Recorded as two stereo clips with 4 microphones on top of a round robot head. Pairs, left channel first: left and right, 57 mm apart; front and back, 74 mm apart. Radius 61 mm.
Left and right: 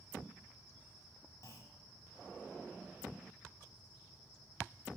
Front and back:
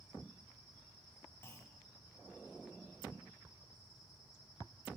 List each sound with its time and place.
1.4 s a clunk: 60° left, 1.6 m